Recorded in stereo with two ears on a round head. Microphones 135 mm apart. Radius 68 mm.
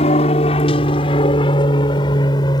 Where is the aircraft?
40° left (ahead or behind); by 2.6 s 30° left (ahead or behind).